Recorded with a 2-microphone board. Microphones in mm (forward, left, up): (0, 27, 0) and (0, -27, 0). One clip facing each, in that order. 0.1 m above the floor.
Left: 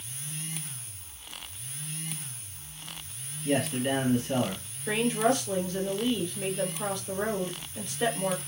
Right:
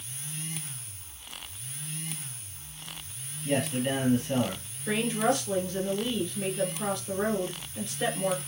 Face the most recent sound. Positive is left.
turn(degrees=-5)  # may be behind; listen again after turning